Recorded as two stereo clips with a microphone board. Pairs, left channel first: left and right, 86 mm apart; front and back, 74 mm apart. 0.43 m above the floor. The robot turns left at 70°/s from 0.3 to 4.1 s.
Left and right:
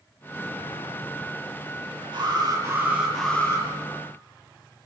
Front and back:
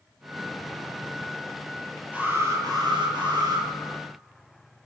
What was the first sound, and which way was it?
An alarm, 110° right.